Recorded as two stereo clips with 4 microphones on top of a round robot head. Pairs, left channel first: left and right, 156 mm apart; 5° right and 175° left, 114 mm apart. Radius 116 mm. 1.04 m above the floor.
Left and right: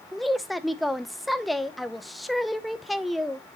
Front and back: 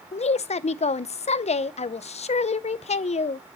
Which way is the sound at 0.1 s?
Straight ahead.